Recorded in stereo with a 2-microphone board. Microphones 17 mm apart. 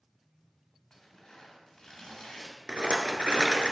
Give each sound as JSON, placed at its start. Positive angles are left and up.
{"t": 0.9, "sound": "tearing paper", "side_deg": 40, "distance_m": 3.0}
{"t": 2.7, "sound": "a rattle", "side_deg": -65, "distance_m": 0.8}